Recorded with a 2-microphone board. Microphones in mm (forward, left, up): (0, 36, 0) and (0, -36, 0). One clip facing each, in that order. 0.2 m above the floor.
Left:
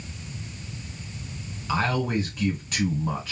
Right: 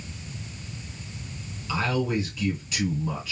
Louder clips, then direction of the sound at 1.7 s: Left 1 dB; 50° left (ahead or behind).